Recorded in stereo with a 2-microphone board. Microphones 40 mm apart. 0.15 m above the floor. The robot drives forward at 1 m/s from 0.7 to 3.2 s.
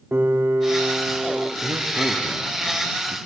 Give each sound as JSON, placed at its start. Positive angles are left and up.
{"t": 0.1, "sound": "a piano", "side_deg": -60, "distance_m": 3.0}
{"t": 1.6, "sound": "a man speaking", "side_deg": -60, "distance_m": 3.0}